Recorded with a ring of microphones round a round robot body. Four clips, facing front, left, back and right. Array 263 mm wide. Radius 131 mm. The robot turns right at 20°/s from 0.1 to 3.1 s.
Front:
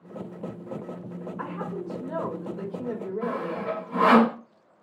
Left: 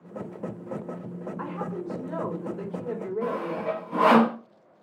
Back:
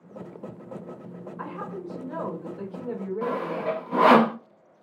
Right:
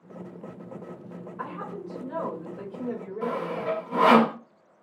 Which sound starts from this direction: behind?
Sawing, at 3.2 s.